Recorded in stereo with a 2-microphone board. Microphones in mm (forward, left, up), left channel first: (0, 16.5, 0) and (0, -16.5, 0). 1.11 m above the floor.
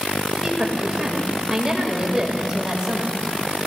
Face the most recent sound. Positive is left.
turn(degrees=-15)  # may be behind; listen again after turning